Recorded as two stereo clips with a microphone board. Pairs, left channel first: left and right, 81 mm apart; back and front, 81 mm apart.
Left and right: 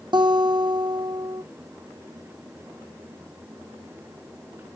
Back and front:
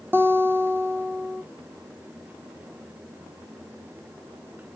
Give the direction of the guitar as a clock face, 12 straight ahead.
2 o'clock.